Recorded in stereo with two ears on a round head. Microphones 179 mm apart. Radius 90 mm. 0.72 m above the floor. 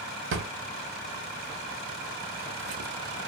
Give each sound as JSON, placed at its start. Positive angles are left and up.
{"t": 0.3, "sound": "a drawer", "side_deg": -70, "distance_m": 0.6}